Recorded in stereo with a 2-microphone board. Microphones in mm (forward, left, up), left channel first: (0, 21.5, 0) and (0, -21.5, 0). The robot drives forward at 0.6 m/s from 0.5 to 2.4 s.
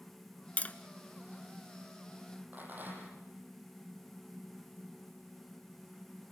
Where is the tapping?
35° left (ahead or behind), 0.9 m.